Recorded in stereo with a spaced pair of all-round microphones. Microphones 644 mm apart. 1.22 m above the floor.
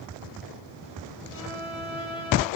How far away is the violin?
About 4 m.